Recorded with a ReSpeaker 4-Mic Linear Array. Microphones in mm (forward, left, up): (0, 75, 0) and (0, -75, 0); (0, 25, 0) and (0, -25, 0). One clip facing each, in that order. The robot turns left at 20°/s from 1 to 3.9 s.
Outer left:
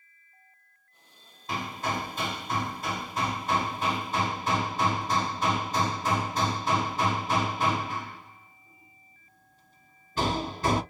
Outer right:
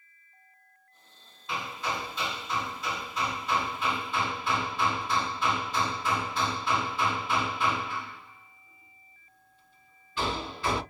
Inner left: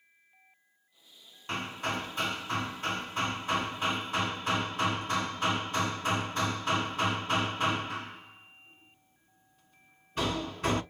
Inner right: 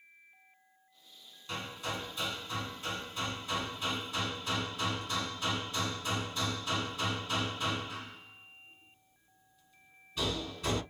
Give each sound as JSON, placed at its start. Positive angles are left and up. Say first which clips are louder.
{"t": 1.5, "sound": "hammering", "louder": "outer left 2 dB, inner left 5 dB", "azimuth_deg": 115, "distance_m": 0.6}